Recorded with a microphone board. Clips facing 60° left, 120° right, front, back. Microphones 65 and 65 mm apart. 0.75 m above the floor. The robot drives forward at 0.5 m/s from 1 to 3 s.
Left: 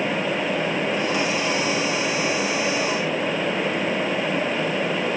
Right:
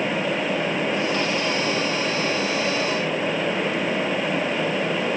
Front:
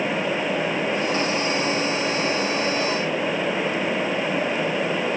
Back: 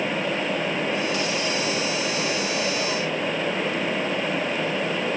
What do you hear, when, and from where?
Only background noise.